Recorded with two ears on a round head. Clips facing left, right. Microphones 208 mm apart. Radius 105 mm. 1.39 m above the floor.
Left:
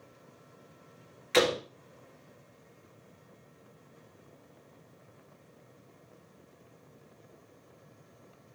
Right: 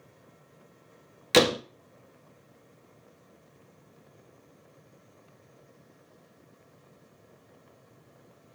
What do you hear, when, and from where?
1.3 s a door slam: 55° right (ahead or behind), 1.9 m